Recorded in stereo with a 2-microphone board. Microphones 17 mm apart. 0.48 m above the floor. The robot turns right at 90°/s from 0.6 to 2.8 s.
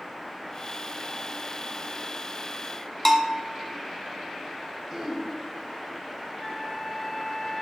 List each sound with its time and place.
3.0 s a bell: 20° left (ahead or behind), 1.2 m
4.9 s throat clearing: 35° right (ahead or behind), 1.5 m
6.4 s a flute: 30° left (ahead or behind), 0.8 m